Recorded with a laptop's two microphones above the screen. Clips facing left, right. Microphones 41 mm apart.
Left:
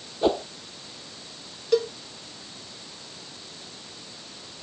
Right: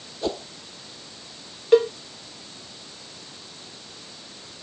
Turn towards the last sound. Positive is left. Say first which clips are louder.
# right 6 dB
turn(degrees=-35)  # may be behind; listen again after turning